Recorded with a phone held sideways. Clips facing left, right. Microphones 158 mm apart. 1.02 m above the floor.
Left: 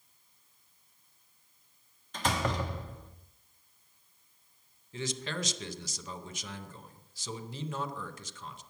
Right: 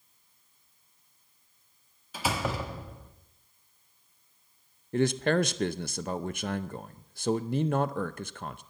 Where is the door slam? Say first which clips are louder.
Even; 5° right (ahead or behind), 1.2 m.